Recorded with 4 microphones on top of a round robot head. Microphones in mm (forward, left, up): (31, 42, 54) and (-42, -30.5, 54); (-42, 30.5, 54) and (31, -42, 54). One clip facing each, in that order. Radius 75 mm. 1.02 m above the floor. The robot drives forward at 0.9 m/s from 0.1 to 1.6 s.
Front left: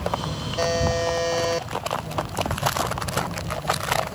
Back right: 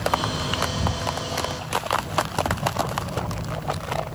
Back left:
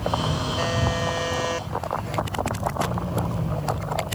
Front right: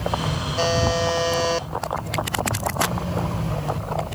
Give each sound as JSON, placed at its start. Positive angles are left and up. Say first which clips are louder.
{"t": 0.6, "sound": "a buzzer", "louder": "front left 5 dB, front right 7 dB", "azimuth_deg": 20}